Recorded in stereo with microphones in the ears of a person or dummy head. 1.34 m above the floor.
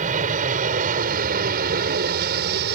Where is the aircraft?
40° right (ahead or behind); by 2.8 s 55° right (ahead or behind).